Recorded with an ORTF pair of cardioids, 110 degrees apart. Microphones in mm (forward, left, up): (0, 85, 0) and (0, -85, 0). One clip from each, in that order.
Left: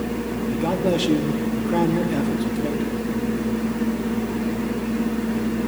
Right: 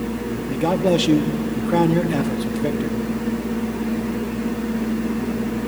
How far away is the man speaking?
About 1.7 m.